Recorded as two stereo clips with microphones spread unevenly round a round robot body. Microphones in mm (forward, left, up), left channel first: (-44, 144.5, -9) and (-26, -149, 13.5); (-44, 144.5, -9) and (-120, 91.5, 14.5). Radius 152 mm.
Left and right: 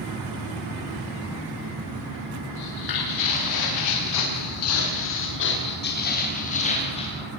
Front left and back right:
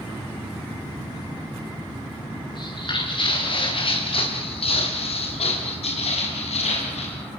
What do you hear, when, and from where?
2.5 s footsteps: 70° left, 8.5 m; by 7.2 s 20° left, 8 m